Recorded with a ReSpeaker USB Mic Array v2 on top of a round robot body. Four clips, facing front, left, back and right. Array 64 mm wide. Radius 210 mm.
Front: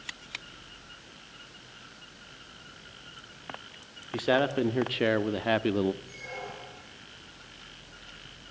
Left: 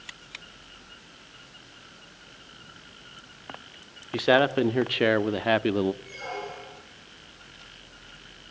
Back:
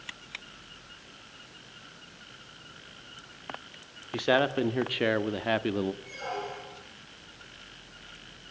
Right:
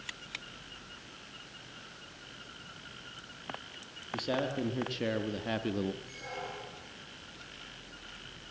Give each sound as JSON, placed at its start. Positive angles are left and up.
{"t": 4.1, "sound": "a man speaking", "azimuth_deg": 100, "distance_m": 2.0}
{"t": 6.0, "sound": "a squeak", "azimuth_deg": 145, "distance_m": 8.0}